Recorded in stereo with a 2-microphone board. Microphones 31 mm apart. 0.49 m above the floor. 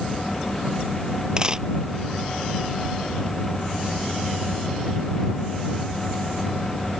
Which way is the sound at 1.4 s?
25° right (ahead or behind).